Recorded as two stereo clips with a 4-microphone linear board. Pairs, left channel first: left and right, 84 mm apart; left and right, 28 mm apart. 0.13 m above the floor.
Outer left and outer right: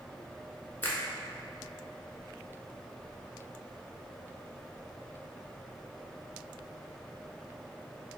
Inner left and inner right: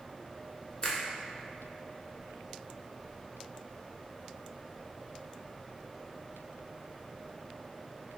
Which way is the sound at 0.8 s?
25° left (ahead or behind).